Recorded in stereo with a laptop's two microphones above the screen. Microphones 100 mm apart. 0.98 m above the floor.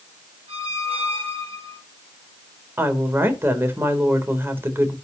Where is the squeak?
75° right (ahead or behind), 3.5 m.